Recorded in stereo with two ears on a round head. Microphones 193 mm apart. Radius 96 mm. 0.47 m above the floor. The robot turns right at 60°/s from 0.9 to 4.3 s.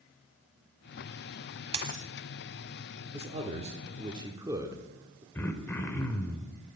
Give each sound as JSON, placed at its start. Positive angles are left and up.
{"t": 1.7, "sound": "a dropped coin", "side_deg": -30, "distance_m": 0.7}
{"t": 3.1, "sound": "a man speaking", "side_deg": -30, "distance_m": 0.8}
{"t": 5.3, "sound": "throat clearing", "side_deg": 10, "distance_m": 0.8}